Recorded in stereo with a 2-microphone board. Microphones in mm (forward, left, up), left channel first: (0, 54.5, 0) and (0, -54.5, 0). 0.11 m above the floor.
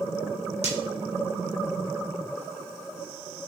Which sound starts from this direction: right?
Breaking glass, at 0.6 s.